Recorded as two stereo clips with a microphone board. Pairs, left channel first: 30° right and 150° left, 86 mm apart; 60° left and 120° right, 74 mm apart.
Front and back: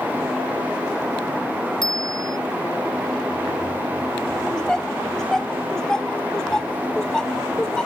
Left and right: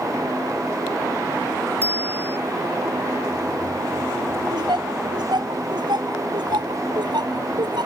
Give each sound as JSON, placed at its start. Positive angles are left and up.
{"t": 1.8, "sound": "a bicycle bell", "azimuth_deg": -60}
{"t": 4.5, "sound": "laughter", "azimuth_deg": -110}